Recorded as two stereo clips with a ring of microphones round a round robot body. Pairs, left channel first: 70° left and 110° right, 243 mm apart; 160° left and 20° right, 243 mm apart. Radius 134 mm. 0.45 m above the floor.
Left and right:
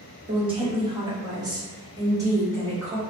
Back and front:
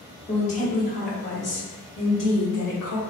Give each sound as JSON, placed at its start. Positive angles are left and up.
{"t": 0.3, "sound": "a woman speaking", "azimuth_deg": -160, "distance_m": 1.2}